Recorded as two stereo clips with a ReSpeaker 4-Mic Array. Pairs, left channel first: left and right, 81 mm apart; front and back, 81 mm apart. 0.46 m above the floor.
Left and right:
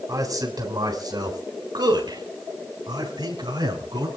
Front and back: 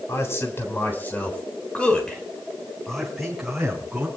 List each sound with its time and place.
0.1 s a man speaking: 55° right, 4 m; by 4.1 s 100° right, 5 m